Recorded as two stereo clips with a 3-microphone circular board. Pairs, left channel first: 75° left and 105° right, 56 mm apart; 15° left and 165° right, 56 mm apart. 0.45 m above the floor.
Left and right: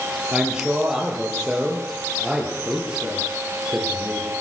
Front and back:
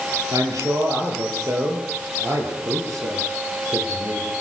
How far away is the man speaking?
About 8.5 m.